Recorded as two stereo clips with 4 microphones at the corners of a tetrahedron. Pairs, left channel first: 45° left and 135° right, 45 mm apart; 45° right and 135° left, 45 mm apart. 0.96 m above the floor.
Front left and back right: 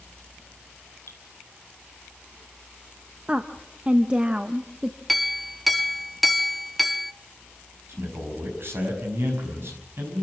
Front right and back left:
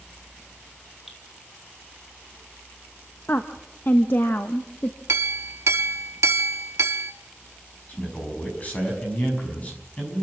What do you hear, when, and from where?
1.1 s dripping: 45° left, 4 m
3.3 s a woman speaking: 70° right, 0.9 m
5.1 s a clink: 135° left, 0.9 m
7.9 s a man speaking: 105° right, 6 m